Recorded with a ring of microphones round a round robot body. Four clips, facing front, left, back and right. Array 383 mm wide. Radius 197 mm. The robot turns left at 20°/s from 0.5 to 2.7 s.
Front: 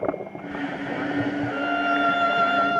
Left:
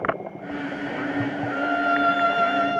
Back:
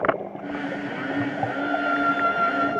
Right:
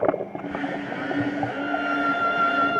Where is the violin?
45° left, 1.2 m; by 2.8 s 20° left, 1.2 m.